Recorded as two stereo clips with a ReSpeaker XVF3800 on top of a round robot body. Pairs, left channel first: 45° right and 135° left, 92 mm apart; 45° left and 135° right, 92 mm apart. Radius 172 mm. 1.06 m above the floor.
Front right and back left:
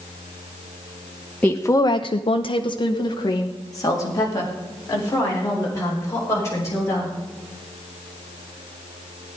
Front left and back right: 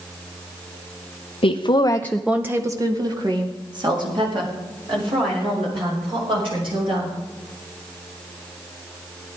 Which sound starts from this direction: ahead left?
A woman speaking, at 1.4 s.